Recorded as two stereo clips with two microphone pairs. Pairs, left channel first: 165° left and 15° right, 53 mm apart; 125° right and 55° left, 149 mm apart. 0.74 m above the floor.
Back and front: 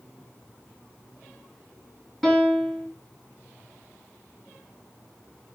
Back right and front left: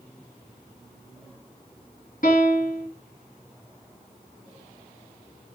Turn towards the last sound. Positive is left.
turn(degrees=-110)